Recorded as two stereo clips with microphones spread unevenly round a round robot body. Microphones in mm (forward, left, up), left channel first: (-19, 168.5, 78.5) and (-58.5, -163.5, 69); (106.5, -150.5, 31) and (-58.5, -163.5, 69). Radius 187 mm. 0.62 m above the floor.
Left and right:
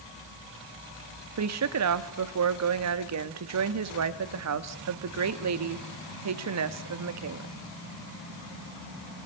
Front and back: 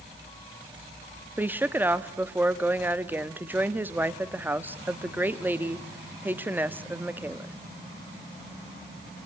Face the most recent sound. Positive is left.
turn(degrees=-85)